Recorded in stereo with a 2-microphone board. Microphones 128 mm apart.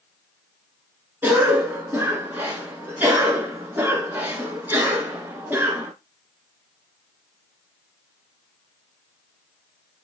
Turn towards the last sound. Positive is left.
turn(degrees=-15)  # may be behind; listen again after turning